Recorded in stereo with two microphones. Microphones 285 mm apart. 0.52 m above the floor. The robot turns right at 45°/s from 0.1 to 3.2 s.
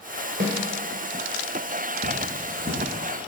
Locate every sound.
0.4 s a snare drum: 40° right (ahead or behind), 2.5 m; by 0.6 s 35° right (ahead or behind), 2.5 m
2.0 s cutlery clinking: 35° right (ahead or behind), 6 m; by 2.9 s centre (ahead or behind), 6 m